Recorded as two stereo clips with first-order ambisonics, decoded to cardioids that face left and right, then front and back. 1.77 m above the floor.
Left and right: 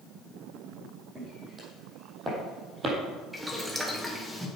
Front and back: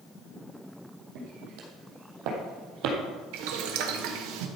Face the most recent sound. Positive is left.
turn(degrees=180)